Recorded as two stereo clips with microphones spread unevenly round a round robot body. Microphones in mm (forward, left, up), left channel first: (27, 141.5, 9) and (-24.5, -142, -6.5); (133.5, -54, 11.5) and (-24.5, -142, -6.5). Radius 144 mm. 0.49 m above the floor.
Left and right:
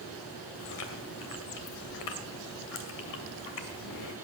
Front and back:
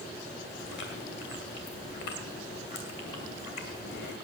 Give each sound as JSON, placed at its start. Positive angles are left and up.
{"t": 0.6, "sound": "chewing", "azimuth_deg": 70, "distance_m": 2.5}